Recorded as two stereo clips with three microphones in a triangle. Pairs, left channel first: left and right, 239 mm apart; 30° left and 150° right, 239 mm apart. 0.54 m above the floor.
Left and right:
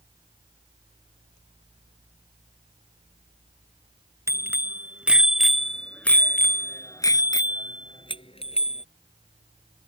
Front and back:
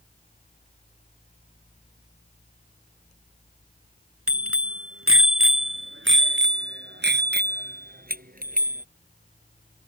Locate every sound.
4.3 s a bicycle bell: 170° right; by 8.8 s 155° left